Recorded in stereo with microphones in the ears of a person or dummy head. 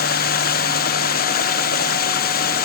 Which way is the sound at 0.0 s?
50° left (ahead or behind).